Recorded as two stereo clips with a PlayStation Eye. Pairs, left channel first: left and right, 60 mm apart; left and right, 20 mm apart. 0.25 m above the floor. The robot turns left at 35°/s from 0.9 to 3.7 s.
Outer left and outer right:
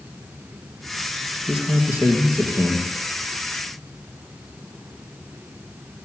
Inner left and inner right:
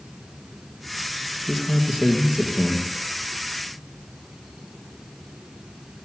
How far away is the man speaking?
About 4 m.